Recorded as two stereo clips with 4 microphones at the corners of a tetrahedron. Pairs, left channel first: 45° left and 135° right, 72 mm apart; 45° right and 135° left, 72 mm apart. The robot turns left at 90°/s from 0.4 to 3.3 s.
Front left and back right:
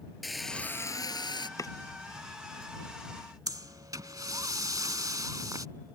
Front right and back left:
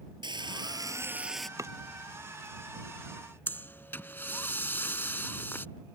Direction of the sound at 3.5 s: 105° right.